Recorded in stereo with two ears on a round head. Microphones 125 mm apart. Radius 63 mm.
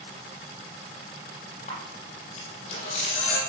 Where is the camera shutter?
55° left (ahead or behind), 6.5 m.